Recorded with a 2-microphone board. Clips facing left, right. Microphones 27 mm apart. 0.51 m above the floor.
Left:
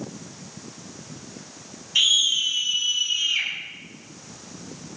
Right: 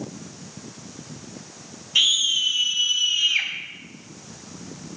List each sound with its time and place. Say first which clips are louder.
1.9 s a scream: even; 5° right (ahead or behind), 5 m; by 3.5 s 25° right (ahead or behind), 4 m